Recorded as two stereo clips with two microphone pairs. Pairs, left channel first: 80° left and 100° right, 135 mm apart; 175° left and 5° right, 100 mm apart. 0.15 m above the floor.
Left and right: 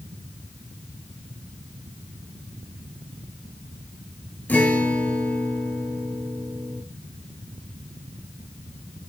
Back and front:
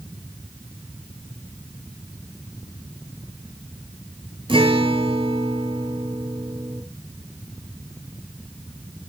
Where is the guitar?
5° left, 1.2 m.